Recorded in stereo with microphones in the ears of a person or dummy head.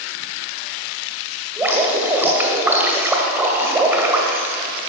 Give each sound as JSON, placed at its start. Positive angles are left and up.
{"t": 1.6, "sound": "dripping", "side_deg": -10, "distance_m": 2.0}